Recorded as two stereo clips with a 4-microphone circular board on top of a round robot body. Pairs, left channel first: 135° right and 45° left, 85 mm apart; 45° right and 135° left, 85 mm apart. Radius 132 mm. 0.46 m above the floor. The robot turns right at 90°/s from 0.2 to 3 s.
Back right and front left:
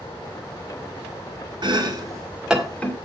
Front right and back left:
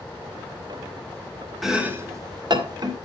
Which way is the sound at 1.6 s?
45° left.